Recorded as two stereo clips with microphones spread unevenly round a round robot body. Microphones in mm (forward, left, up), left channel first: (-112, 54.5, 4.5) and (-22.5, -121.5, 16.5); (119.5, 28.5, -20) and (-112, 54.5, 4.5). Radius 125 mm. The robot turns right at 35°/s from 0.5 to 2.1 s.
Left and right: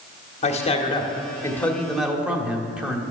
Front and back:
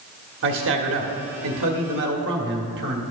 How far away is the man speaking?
About 1.6 m.